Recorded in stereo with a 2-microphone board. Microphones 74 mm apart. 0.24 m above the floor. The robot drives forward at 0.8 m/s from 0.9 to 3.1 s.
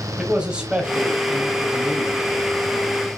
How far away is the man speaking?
About 1.0 m.